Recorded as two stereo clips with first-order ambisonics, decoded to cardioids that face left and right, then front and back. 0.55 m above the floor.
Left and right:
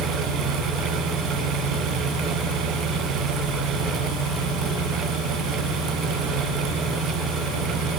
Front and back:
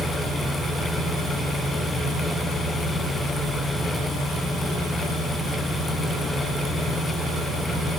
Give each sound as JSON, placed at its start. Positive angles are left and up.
{"t": 0.0, "sound": "an engine running", "azimuth_deg": -95, "distance_m": 9.5}